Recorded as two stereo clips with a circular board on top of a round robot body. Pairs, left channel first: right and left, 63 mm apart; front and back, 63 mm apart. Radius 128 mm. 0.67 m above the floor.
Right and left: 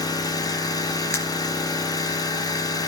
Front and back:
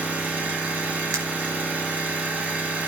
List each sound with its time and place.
0.0 s an engine running: 110° right, 4 m
1.1 s breaking glass: 140° right, 4.5 m